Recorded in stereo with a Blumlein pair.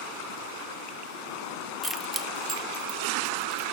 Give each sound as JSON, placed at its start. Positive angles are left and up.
{"t": 1.8, "sound": "keys jangling", "azimuth_deg": 5, "distance_m": 0.8}